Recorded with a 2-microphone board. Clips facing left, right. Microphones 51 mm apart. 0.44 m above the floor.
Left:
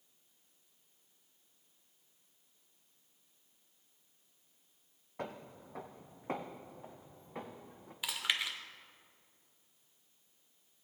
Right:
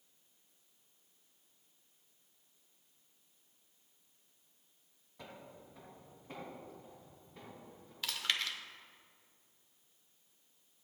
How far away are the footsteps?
About 0.9 m.